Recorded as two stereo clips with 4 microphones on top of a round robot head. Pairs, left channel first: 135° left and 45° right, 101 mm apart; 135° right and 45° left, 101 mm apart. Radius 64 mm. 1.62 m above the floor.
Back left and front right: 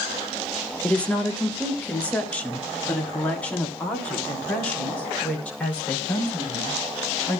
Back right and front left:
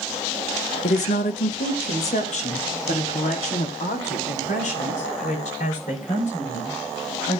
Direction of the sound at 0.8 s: 145° right.